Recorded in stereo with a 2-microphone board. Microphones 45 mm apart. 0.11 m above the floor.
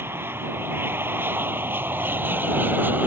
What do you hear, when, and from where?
0.0 s an aircraft: 60° right (ahead or behind); by 3.1 s 45° right (ahead or behind)